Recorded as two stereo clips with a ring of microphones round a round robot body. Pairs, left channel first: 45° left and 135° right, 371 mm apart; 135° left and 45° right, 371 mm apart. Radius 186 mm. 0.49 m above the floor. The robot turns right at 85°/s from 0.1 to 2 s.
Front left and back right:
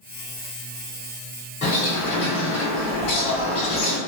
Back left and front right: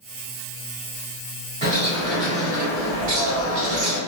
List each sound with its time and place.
1.6 s a bird: 25° right, 1.4 m; by 4.0 s 5° left, 1.4 m